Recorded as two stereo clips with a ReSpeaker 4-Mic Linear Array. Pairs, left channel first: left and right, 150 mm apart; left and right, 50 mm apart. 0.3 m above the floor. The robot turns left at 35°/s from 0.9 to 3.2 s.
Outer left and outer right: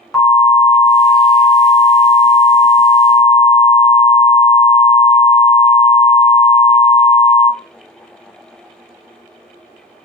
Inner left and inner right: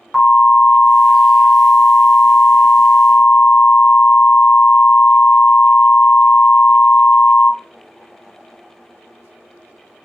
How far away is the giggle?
I don't hear a giggle.